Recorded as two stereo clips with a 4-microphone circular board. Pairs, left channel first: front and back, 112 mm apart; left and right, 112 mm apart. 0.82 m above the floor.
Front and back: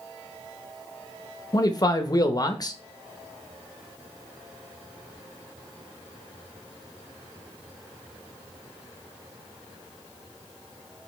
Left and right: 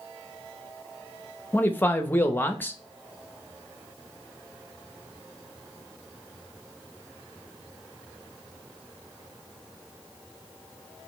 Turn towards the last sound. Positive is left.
turn(degrees=25)